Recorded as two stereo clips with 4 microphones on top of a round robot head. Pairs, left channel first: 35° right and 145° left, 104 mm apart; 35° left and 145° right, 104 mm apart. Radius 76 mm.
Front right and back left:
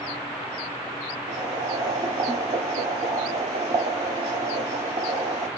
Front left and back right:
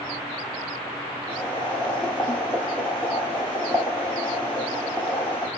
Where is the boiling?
115° left, 0.9 m.